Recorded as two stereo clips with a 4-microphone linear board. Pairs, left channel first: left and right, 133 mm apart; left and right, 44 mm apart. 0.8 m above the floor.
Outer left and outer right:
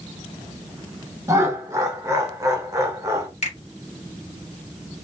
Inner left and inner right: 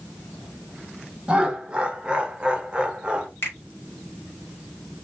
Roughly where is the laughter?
Right.